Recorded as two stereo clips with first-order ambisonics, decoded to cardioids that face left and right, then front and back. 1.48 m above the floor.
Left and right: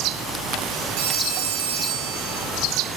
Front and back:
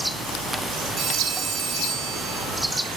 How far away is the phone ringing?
About 7.5 m.